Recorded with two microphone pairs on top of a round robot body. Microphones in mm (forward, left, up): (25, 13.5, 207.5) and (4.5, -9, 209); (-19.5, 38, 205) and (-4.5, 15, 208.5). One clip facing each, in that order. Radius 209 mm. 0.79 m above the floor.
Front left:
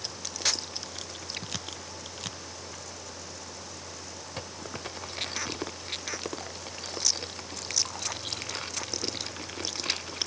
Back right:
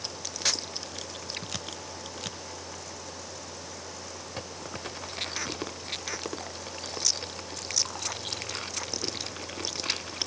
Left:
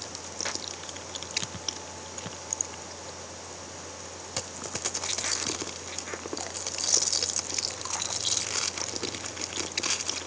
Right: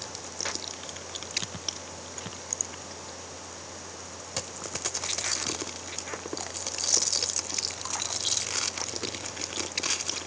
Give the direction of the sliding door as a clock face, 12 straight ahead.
No sliding door in this recording.